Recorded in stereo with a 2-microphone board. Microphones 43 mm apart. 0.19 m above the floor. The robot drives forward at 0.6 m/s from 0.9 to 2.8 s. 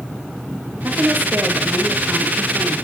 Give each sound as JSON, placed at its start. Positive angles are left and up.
{"t": 0.8, "sound": "a woman speaking", "side_deg": -55, "distance_m": 3.5}